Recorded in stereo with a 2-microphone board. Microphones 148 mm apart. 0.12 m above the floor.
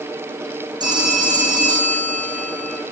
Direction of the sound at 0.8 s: 30° right (ahead or behind).